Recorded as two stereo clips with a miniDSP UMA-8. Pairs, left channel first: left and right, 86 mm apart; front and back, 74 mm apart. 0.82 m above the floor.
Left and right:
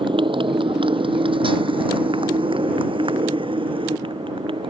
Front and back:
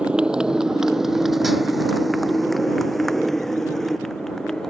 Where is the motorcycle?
105° right; by 4.7 s 85° right.